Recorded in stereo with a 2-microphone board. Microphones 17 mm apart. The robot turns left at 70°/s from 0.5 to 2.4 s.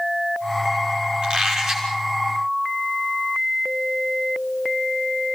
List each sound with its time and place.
1.2 s a squeak: 115° right, 5.5 m; by 1.9 s 160° right, 5.5 m